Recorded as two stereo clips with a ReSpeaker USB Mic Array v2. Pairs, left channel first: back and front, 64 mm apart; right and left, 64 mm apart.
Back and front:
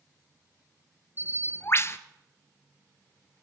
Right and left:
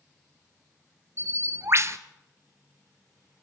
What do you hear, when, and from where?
1.2 s a bird: 135° left, 1.0 m